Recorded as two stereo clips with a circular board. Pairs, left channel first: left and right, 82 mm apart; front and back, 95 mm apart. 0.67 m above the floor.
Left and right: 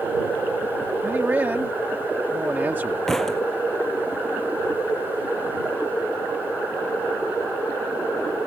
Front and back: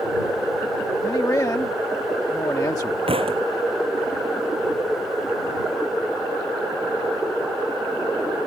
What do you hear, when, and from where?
1.0 s a man speaking: 35° right
3.1 s a thud: 175° left